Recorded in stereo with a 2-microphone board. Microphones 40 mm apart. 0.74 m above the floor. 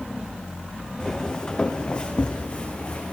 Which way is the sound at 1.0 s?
20° left (ahead or behind).